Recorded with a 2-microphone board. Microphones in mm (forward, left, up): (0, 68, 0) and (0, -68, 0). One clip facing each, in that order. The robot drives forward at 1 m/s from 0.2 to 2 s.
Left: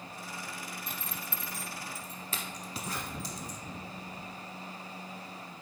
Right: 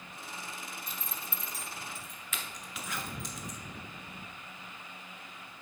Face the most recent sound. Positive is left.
turn(degrees=35)  # may be behind; listen again after turning